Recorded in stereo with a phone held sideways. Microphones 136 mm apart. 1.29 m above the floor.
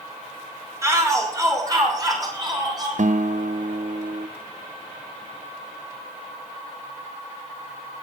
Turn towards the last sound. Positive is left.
turn(degrees=-65)  # may be behind; listen again after turning